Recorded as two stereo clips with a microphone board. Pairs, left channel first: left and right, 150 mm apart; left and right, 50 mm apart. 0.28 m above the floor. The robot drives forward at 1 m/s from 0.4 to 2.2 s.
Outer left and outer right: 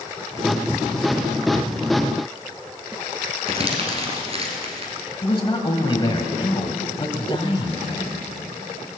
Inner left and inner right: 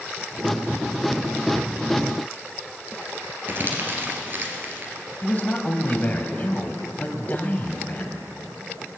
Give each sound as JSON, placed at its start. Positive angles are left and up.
{"t": 3.5, "sound": "crumpling", "side_deg": -40, "distance_m": 2.5}
{"t": 5.2, "sound": "a man speaking", "side_deg": 35, "distance_m": 1.3}